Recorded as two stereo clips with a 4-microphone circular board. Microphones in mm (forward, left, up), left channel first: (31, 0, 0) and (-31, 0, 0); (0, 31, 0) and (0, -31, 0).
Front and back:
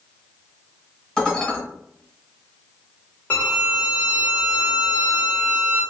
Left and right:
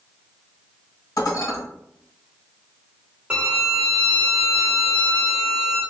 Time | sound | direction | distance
1.2 | dishes clattering | 70° left | 1.7 m
3.3 | a violin | 30° right | 1.5 m